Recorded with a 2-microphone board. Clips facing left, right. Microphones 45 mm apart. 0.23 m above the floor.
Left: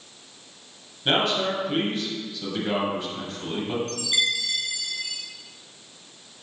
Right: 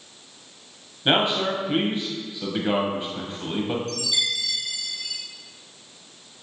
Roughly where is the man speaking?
Right.